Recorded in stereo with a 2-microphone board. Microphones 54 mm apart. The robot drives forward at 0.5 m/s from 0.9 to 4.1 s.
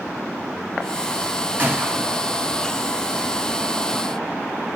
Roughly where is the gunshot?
Right.